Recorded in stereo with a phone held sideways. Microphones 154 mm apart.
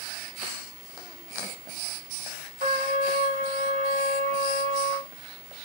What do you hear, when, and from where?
2.6 s a trumpet: 55° right (ahead or behind), 1.1 m